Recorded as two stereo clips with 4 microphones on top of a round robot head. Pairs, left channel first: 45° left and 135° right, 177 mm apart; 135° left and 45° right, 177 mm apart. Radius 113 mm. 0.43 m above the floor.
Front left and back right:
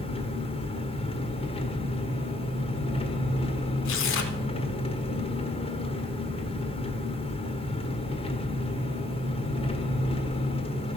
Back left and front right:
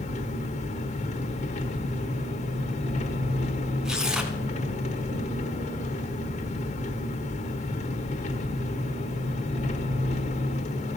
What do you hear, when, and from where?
0.0 s an engine running: 95° left, 1.3 m
3.9 s tearing paper: 40° left, 1.1 m